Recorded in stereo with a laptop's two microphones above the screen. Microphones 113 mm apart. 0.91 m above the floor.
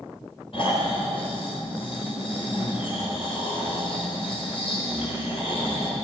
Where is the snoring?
55° left (ahead or behind), 3.5 m.